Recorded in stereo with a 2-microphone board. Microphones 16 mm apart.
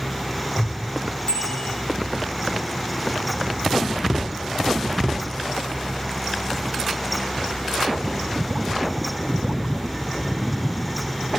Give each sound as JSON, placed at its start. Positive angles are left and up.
{"t": 1.3, "sound": "a bicycle bell", "side_deg": 70, "distance_m": 4.5}